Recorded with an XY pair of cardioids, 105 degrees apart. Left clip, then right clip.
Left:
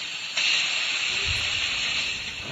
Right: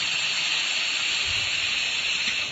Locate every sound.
1.1 s a child speaking: 55° left, 2 m